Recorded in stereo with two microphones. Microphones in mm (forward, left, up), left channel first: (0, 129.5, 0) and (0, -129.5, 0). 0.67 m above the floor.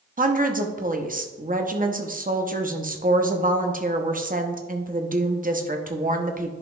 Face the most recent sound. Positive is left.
turn(degrees=-30)  # may be behind; listen again after turning